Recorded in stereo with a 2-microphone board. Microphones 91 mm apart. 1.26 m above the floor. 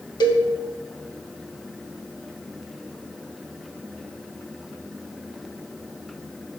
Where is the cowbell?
50° left (ahead or behind), 1.4 m.